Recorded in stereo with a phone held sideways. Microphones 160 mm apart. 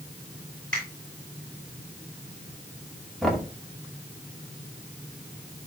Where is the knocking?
Centre (ahead or behind), 2 m.